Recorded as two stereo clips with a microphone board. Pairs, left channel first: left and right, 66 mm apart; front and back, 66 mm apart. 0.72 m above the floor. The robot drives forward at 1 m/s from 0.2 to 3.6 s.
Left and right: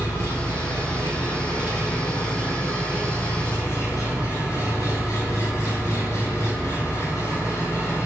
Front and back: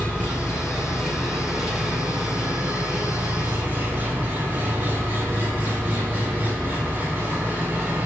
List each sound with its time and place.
0.0 s an engine running: 70° left, 3.5 m; by 8.1 s 120° left, 4 m